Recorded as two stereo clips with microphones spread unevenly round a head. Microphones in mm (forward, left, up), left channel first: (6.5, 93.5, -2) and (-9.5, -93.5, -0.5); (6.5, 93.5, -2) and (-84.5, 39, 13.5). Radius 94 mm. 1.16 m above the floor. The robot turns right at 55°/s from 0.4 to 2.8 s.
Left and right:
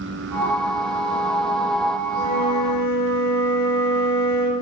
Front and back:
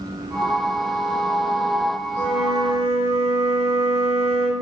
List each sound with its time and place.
2.1 s a flute: 50° right, 1.9 m; by 4.5 s 15° right, 1.9 m